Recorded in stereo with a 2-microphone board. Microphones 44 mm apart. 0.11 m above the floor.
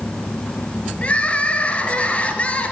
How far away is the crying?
About 1.3 m.